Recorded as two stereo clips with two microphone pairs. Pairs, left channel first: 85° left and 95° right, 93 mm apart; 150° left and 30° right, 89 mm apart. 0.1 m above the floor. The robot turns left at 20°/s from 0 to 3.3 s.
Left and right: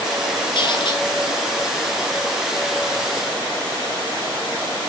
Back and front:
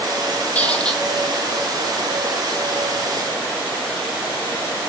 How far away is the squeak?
About 0.7 m.